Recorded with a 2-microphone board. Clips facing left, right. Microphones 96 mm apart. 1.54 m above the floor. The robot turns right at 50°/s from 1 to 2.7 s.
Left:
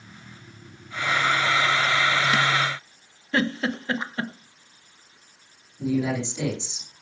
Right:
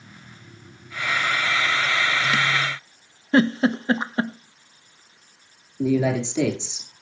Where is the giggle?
30° right (ahead or behind), 0.8 m.